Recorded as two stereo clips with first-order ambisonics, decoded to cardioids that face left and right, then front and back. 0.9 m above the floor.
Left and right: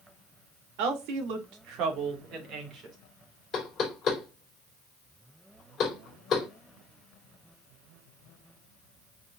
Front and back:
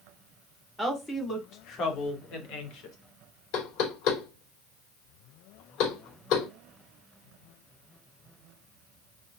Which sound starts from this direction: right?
A woman speaking, at 0.8 s.